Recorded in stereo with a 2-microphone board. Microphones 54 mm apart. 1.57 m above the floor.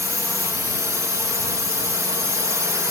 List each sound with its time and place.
0.0 s a drone: 80° right